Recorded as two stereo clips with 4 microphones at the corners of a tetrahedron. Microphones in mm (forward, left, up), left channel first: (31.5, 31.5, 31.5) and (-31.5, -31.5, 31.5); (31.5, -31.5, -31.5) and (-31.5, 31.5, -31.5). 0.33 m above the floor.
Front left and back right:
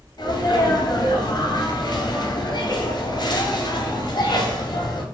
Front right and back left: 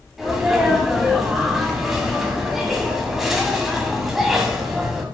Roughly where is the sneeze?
Ahead left.